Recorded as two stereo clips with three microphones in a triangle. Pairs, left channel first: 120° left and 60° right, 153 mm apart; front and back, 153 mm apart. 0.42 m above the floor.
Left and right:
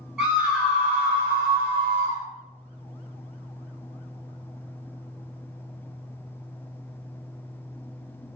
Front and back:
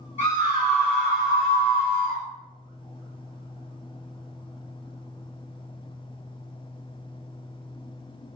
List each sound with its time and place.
0.2 s a scream: 25° left, 1.3 m; by 2.2 s 40° right, 1.4 m